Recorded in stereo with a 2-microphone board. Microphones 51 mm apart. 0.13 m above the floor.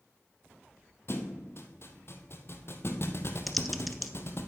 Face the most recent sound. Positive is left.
turn(degrees=0)  # may be behind; listen again after turning